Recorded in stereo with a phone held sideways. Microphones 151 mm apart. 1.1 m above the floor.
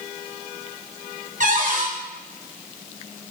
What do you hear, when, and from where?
1.4 s a cupboard door: 55° right (ahead or behind), 0.9 m